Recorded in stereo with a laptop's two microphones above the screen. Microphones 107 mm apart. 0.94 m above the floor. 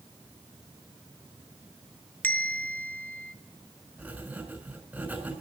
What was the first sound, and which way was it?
A bell, 15° left (ahead or behind).